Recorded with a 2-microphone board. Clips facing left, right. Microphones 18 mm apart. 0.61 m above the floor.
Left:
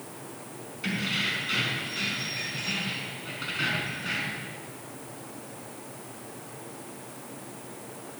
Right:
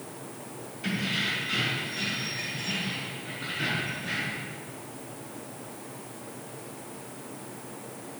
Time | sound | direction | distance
0.8 | keys jangling | 20° left (ahead or behind) | 4.5 m